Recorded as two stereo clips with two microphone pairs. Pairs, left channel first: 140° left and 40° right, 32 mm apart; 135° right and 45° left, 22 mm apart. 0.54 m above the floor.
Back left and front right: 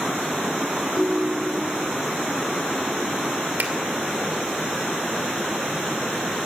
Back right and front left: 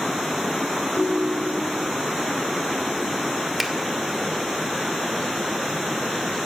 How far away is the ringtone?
About 2 m.